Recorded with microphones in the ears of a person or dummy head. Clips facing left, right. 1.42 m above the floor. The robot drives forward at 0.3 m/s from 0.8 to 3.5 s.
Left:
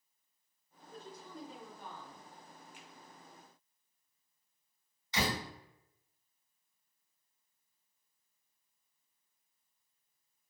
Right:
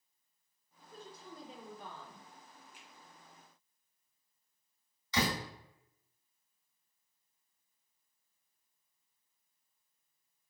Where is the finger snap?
35° left (ahead or behind), 0.6 m.